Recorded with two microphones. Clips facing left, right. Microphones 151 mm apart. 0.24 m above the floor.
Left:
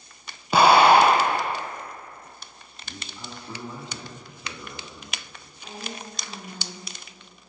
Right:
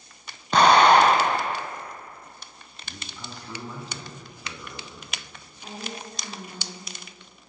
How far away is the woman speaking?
About 2.5 m.